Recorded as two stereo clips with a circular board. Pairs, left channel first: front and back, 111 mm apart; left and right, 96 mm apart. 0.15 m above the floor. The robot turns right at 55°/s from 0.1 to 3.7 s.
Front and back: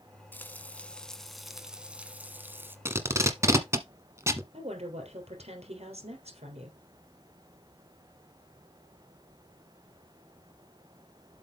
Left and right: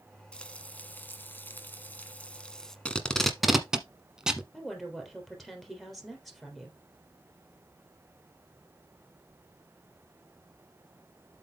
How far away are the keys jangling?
No keys jangling in this recording.